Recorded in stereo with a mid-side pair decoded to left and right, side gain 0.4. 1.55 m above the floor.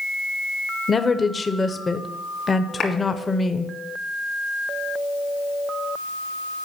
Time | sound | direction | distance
0.9 | a woman speaking | 30° left | 0.8 m
2.8 | a clap | 60° left | 2 m